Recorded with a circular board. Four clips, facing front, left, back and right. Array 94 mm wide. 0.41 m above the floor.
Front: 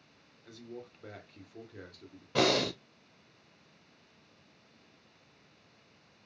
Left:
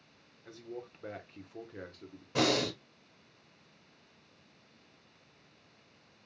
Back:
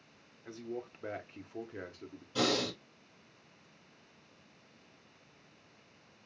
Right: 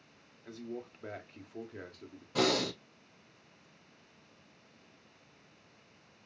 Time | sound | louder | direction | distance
0.5 | a man speaking | right 2 dB, back 5 dB | 175° right | 1.0 m
2.4 | breathing | left 1 dB, front 4 dB | 20° left | 1.4 m